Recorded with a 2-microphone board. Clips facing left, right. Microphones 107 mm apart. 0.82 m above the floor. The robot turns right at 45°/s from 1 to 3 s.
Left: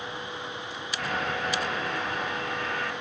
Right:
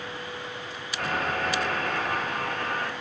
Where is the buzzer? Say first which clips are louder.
Right 2 dB; 120° right, 0.8 m; by 2.9 s 35° right, 0.8 m.